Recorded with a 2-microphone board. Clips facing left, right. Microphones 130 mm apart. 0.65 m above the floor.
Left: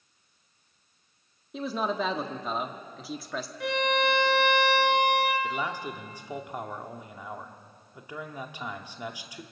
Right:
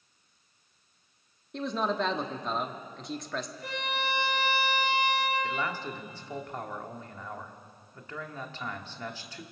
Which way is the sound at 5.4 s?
10° left (ahead or behind).